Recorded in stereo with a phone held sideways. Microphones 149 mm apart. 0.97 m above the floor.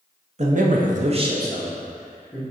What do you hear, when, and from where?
0.4 s a man speaking: 50° right (ahead or behind), 0.7 m; by 2.4 s 5° right (ahead or behind), 1.7 m